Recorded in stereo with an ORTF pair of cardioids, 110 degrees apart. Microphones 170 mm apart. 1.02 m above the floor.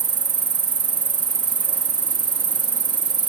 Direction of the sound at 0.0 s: 30° right.